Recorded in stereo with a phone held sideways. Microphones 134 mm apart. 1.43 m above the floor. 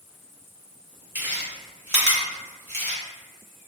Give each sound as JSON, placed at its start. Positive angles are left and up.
{"t": 1.1, "sound": "chewing", "side_deg": -20, "distance_m": 1.1}